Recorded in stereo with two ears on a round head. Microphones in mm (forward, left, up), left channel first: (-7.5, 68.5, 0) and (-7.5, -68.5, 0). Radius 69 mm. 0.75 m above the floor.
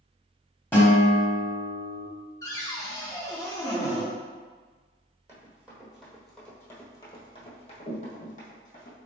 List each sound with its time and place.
0.7 s a guitar: 10° left (ahead or behind), 1.1 m
2.4 s a cupboard door: 20° left (ahead or behind), 0.6 m
5.3 s running footsteps: 15° right (ahead or behind), 1.4 m; by 9.0 s 65° left (ahead or behind), 1.5 m